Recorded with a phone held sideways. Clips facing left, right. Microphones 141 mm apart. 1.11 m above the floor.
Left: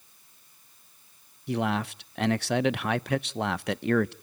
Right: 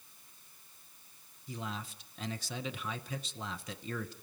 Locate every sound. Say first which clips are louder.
1.5 s a man speaking: left 14 dB; 70° left (ahead or behind), 0.5 m